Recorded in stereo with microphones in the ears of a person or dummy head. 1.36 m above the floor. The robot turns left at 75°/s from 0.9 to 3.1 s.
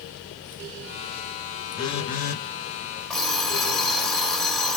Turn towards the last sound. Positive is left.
turn(degrees=5)  # may be behind; listen again after turning